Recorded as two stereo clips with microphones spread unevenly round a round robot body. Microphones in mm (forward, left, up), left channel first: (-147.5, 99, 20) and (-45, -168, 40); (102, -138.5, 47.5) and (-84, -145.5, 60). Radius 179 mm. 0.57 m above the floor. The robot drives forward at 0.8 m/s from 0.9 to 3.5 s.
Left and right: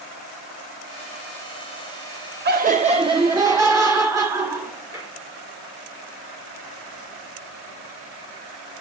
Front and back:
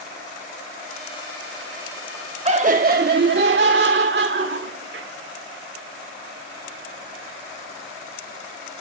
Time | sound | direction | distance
2.5 | laughter | 125° right | 1.1 m